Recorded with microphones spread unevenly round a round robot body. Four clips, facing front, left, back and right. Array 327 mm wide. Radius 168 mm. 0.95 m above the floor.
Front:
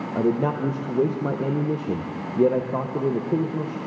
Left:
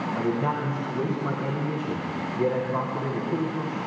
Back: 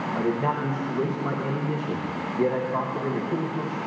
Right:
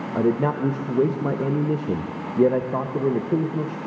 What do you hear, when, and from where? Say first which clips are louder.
0.1 s a man speaking: right 7 dB, front 4 dB; 65° right, 0.8 m